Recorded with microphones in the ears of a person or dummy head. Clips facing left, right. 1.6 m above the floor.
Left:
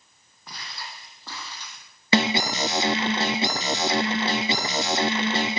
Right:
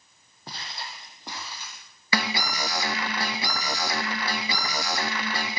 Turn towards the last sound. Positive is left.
turn(degrees=20)  # may be behind; listen again after turning